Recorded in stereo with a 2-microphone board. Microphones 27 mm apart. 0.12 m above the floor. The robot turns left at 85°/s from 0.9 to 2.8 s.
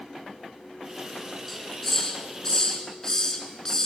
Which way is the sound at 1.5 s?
Centre (ahead or behind).